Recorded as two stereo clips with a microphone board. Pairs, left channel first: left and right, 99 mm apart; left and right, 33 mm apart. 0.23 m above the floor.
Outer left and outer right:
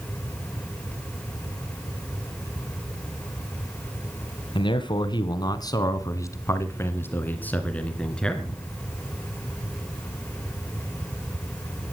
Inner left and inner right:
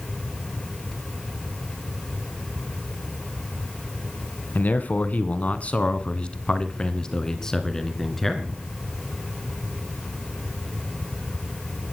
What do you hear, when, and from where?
4.5 s a man speaking: 55° left (ahead or behind), 1.9 m; by 8.6 s 5° left (ahead or behind), 2.5 m